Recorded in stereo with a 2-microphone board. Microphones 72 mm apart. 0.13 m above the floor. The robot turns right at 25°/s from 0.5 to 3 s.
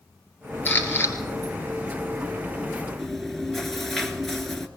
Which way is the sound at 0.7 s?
25° left (ahead or behind).